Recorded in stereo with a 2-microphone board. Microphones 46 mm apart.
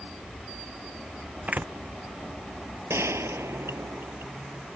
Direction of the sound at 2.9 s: 80° right.